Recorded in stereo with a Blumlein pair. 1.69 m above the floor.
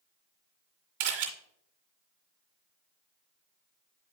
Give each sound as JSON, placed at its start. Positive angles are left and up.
{"t": 1.0, "sound": "a camera shutter", "azimuth_deg": -50, "distance_m": 2.0}